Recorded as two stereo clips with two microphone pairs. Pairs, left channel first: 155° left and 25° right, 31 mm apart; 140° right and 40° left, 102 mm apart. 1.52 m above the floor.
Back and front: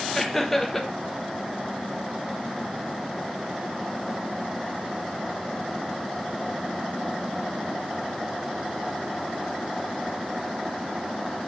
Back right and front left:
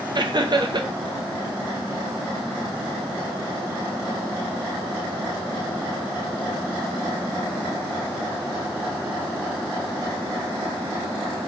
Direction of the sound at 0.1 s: 75° left.